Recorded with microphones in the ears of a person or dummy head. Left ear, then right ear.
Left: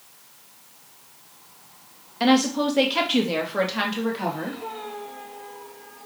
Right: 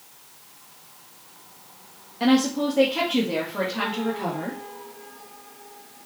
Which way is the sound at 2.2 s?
30° left (ahead or behind).